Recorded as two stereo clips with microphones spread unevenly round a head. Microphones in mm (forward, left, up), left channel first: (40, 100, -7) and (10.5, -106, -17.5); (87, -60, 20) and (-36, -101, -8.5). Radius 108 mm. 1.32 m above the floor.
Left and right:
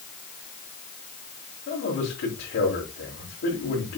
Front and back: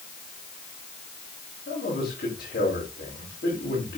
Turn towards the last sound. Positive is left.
turn(degrees=50)